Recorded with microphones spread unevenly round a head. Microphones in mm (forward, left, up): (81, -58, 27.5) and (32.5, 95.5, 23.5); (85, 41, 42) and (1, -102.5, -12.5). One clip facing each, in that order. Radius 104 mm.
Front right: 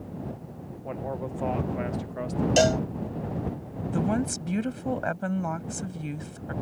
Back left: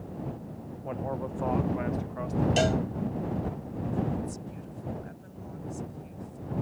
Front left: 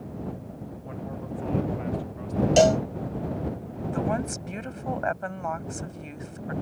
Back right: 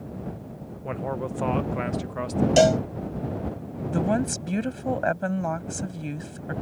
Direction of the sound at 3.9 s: 70° right.